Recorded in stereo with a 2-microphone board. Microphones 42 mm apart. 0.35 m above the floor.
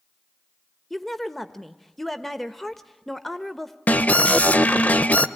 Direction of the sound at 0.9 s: 5° left (ahead or behind).